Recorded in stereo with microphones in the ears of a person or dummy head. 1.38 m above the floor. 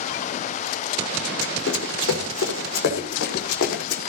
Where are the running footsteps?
75° left (ahead or behind), 5.5 m.